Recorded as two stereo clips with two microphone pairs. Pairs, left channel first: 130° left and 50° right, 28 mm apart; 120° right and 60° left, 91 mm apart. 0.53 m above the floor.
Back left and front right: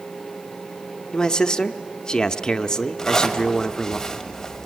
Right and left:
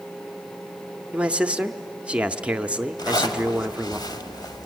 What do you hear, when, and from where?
1.1 s a man speaking: 115° left, 0.7 m
3.0 s a zipper: 160° right, 1.4 m